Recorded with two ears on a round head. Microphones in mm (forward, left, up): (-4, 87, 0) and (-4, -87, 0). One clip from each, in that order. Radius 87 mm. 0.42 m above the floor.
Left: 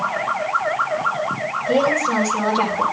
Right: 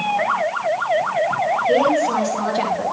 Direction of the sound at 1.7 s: Centre (ahead or behind).